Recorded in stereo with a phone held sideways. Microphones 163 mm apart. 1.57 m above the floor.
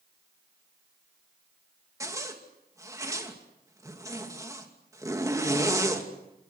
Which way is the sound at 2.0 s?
20° right (ahead or behind).